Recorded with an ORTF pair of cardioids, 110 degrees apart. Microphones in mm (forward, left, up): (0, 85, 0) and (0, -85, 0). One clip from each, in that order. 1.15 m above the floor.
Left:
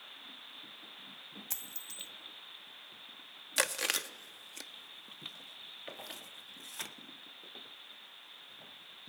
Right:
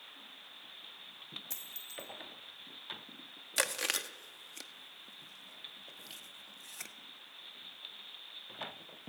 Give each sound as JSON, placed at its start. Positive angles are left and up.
{"t": 1.5, "sound": "a dropped coin", "azimuth_deg": 30, "distance_m": 2.5}
{"t": 3.6, "sound": "chewing", "azimuth_deg": 5, "distance_m": 1.2}